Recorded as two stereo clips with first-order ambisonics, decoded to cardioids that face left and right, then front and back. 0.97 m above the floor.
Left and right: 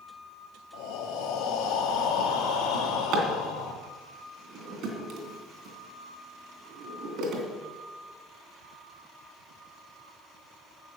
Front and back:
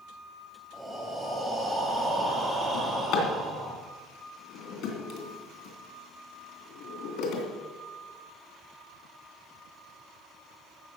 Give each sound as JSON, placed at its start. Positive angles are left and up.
{"t": 0.7, "sound": "breathing", "azimuth_deg": 95, "distance_m": 2.5}
{"t": 2.7, "sound": "a drawer", "azimuth_deg": -40, "distance_m": 3.0}